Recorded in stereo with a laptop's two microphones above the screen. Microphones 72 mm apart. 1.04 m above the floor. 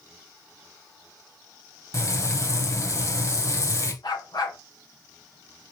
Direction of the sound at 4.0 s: 70° left (ahead or behind).